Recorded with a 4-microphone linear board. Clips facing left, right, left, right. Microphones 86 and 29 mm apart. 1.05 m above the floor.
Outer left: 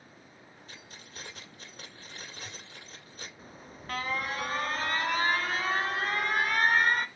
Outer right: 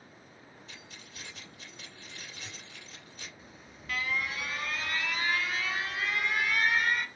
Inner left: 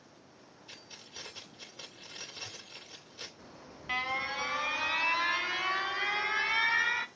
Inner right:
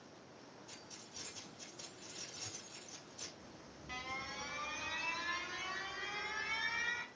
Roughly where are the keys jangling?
Left.